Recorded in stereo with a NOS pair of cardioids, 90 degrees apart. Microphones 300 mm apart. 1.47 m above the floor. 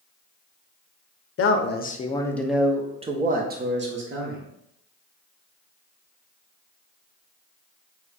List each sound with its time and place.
1.4 s a man speaking: 45° left, 0.8 m; by 4.4 s 45° right, 1.5 m